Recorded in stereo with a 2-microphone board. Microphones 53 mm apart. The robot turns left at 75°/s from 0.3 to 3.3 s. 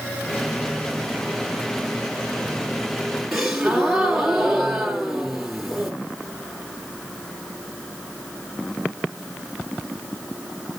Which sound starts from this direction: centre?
A gasp, at 3.3 s.